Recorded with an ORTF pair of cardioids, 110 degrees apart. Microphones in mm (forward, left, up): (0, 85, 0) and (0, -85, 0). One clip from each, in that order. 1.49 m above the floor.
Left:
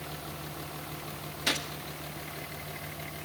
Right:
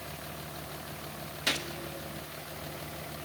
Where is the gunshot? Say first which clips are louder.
Left 1 dB; straight ahead, 2 m.